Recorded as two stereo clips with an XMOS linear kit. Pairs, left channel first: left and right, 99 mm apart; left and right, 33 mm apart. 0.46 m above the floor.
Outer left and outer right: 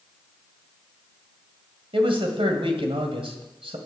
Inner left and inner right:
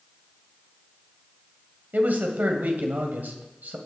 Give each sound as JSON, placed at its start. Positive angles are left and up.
{"t": 1.9, "sound": "a man speaking", "side_deg": -65, "distance_m": 2.0}